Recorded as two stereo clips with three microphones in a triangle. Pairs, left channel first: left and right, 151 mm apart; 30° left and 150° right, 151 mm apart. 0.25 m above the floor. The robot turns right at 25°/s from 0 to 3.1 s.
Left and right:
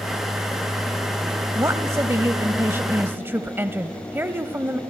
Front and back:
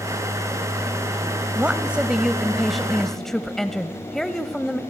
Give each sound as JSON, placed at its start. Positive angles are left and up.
{"t": 1.6, "sound": "a woman speaking", "azimuth_deg": -90, "distance_m": 0.9}